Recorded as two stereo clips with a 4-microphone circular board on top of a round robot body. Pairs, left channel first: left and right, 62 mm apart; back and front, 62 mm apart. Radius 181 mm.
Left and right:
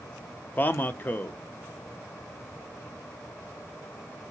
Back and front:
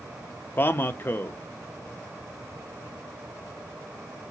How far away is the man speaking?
About 0.6 m.